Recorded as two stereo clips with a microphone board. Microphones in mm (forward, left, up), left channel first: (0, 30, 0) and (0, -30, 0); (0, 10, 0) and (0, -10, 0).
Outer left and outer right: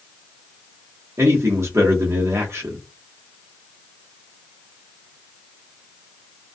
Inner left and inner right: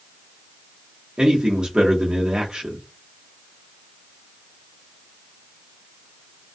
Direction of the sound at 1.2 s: 50° right (ahead or behind).